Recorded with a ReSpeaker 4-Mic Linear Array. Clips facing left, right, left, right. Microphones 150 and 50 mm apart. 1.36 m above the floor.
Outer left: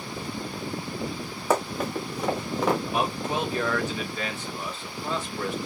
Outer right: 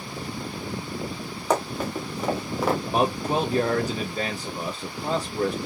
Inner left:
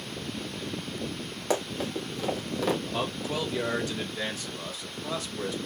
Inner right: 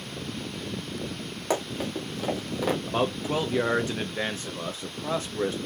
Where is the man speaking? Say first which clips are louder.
Outer right 4 dB, inner right 4 dB; 40° right (ahead or behind), 1.0 m.